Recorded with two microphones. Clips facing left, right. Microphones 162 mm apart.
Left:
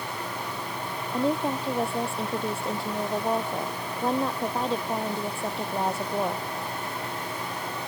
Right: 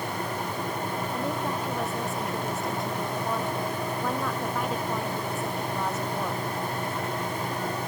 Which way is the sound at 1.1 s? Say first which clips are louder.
Left 8 dB; 30° left (ahead or behind).